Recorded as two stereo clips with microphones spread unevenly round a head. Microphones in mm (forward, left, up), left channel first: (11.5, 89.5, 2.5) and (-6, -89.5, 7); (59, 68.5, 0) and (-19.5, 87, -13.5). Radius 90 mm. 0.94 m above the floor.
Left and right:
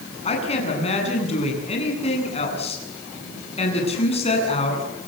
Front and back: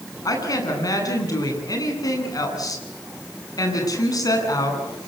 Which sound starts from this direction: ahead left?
A woman speaking, at 0.2 s.